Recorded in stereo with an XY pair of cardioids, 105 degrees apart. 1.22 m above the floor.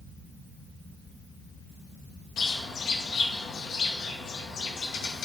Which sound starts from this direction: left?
A bird, at 2.4 s.